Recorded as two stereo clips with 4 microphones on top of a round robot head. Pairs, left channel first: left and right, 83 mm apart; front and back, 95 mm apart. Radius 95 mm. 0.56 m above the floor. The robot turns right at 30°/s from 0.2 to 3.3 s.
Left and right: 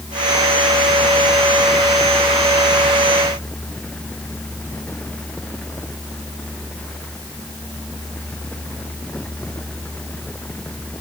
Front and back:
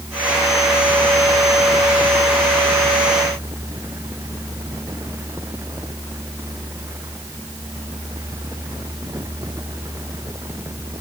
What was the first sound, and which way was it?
Only background noise.